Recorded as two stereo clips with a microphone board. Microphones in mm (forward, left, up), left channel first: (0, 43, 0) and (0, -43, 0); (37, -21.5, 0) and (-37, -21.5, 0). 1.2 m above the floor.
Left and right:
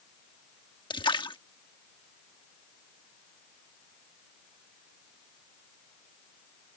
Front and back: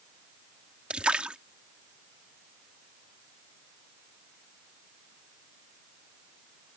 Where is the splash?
105° left.